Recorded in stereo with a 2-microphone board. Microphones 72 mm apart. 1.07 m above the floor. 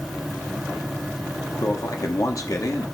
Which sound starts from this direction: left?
A man speaking, at 1.6 s.